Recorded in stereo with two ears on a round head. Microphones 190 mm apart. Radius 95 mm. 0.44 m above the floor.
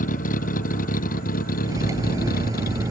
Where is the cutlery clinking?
15° right (ahead or behind).